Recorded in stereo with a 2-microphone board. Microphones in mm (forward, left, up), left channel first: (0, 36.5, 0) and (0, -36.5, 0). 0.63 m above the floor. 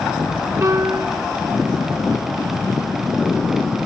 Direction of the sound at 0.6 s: 40° right (ahead or behind).